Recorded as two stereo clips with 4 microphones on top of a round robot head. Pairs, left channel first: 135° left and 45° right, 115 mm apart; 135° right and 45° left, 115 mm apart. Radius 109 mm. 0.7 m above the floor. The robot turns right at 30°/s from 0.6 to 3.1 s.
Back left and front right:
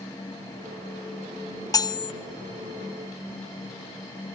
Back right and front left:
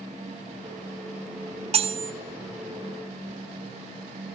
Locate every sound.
1.7 s cutlery clinking: 75° left, 0.7 m; by 2.1 s 90° left, 0.7 m